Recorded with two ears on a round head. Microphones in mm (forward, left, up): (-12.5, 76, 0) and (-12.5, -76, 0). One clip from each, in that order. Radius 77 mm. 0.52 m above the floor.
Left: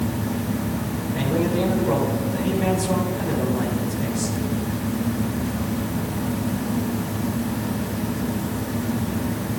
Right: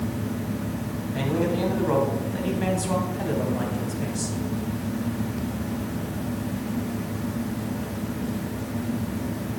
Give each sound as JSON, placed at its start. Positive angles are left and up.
{"t": 1.1, "sound": "a man speaking", "side_deg": -15, "distance_m": 3.0}